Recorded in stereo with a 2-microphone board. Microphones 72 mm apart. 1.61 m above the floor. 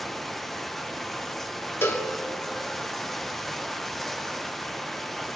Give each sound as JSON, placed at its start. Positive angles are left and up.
{"t": 0.0, "sound": "running water", "side_deg": 5, "distance_m": 0.9}
{"t": 1.8, "sound": "a cowbell", "side_deg": 35, "distance_m": 1.8}